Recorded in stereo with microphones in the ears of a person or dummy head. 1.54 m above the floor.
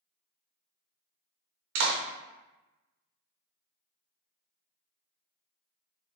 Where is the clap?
65° right (ahead or behind), 0.7 m.